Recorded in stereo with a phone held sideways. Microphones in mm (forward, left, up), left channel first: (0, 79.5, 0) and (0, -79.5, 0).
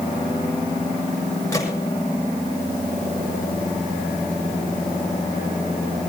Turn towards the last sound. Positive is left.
turn(degrees=20)  # may be behind; listen again after turning